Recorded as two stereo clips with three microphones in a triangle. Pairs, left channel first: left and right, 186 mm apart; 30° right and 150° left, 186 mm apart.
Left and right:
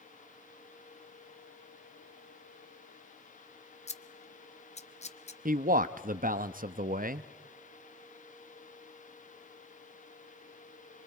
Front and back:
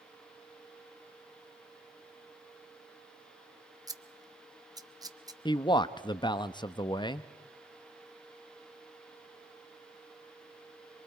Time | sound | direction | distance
3.9 | scissors | 95° left | 0.7 m
5.5 | a man speaking | 90° right | 0.6 m